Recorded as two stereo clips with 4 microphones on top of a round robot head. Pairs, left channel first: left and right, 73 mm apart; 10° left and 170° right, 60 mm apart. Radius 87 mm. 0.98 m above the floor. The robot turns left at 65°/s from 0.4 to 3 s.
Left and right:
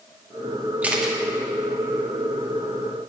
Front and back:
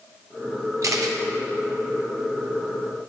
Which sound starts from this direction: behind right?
A camera shutter, at 0.8 s.